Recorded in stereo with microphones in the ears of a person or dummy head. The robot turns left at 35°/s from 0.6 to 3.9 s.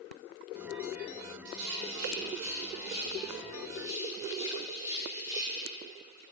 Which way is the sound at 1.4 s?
70° right (ahead or behind).